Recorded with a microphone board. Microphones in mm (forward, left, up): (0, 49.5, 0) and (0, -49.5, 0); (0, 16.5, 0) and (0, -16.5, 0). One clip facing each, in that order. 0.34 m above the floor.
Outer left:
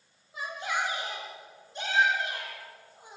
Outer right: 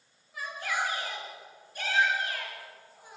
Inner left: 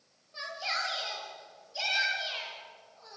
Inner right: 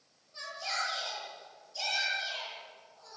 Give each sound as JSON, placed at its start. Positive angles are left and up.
{"t": 0.3, "sound": "a shout", "side_deg": 20, "distance_m": 8.0}